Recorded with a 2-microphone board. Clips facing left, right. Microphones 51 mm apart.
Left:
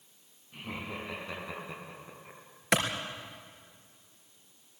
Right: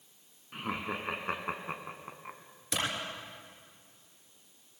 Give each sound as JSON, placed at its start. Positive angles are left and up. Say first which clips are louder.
{"t": 0.5, "sound": "laughter", "louder": "right 4 dB", "side_deg": -65, "distance_m": 4.5}
{"t": 2.7, "sound": "a clap", "louder": "left 7 dB", "side_deg": 70, "distance_m": 3.5}